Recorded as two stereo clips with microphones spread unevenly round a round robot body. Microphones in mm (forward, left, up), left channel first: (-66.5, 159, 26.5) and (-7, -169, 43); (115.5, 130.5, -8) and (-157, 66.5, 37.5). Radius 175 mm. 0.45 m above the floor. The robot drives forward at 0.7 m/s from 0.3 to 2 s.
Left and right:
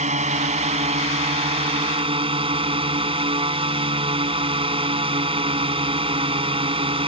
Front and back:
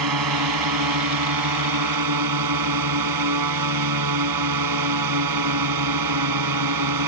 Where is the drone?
150° right; by 7.1 s 155° right.